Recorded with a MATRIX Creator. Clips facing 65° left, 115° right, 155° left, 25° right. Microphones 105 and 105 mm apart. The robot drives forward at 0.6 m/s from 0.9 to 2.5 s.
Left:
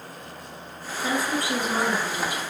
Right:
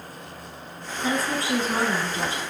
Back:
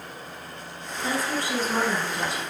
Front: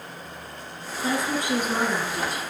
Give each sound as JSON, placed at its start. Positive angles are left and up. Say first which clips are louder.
{"t": 1.0, "sound": "a woman speaking", "louder": "even, front 2 dB", "azimuth_deg": -60, "distance_m": 1.5}